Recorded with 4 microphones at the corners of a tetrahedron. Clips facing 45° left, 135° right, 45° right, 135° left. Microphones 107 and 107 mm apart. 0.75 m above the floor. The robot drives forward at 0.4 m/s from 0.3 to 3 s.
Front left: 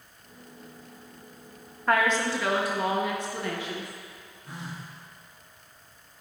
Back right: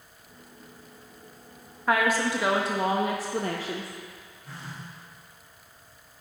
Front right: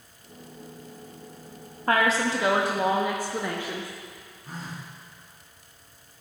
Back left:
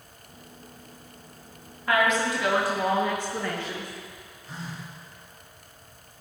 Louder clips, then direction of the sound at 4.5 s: Front left 2 dB, even; 25° right.